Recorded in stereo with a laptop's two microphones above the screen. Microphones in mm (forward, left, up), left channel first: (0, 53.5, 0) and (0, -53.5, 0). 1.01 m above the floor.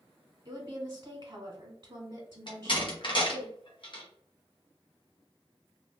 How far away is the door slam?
About 0.7 m.